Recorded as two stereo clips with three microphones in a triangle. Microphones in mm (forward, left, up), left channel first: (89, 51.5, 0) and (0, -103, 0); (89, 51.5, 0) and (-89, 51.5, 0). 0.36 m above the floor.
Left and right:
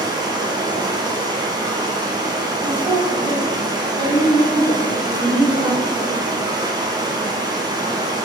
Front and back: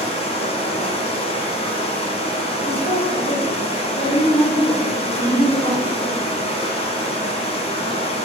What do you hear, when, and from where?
0.0 s running water: 55° right, 1.7 m
2.6 s a woman speaking: 35° right, 3 m